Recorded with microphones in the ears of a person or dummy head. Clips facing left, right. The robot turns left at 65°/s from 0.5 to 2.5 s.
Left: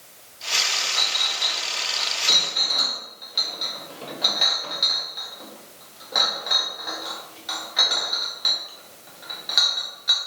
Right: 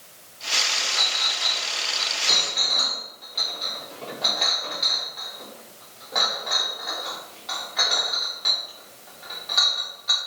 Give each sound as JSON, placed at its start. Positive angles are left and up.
{"t": 1.0, "sound": "a clink", "side_deg": 50, "distance_m": 1.4}